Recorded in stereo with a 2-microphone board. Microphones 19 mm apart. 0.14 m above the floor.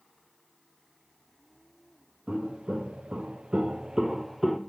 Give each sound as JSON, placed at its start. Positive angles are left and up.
{"t": 2.3, "sound": "footsteps", "side_deg": -65, "distance_m": 1.9}